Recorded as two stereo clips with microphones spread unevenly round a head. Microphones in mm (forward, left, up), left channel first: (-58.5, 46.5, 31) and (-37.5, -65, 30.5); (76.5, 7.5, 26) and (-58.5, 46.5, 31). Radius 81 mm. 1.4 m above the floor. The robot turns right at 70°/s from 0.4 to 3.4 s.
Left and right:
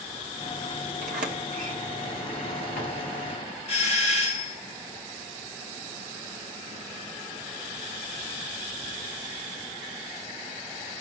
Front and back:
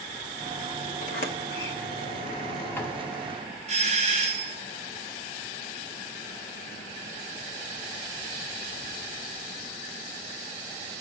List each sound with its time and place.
1.0 s a sliding door: 65° right, 1.7 m; by 3.6 s 100° left, 1.7 m
3.7 s a doorbell: 125° left, 2.5 m